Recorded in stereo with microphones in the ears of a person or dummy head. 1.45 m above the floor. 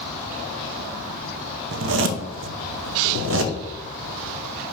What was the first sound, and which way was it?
A zipper, 70° right (ahead or behind).